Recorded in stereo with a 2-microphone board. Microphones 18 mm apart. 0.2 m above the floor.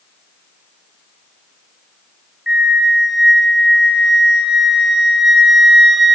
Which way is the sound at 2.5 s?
30° right (ahead or behind).